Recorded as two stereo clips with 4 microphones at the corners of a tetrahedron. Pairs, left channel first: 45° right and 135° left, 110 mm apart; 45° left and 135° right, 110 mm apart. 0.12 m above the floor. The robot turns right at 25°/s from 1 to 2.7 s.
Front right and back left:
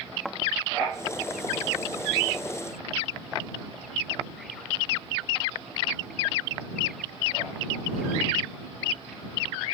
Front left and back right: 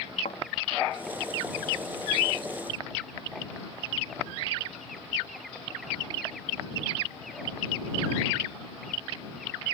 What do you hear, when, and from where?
0.2 s a thud: 40° left